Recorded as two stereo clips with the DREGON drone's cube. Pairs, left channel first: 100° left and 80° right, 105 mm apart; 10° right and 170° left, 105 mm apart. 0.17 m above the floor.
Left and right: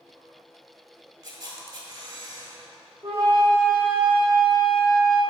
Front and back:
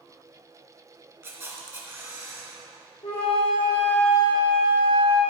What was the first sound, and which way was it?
A camera shutter, 130° right.